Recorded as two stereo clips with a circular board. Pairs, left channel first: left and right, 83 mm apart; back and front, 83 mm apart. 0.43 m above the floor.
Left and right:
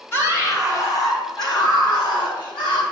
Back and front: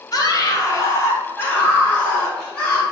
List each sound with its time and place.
0.1 s a scream: 145° left, 2.0 m; by 2.8 s 100° left, 4 m